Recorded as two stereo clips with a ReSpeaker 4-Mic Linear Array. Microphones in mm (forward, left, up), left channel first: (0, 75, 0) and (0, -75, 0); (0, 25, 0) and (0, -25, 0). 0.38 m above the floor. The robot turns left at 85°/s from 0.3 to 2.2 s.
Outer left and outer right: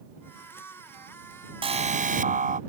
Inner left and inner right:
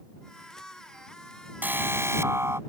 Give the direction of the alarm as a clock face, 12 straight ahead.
1 o'clock.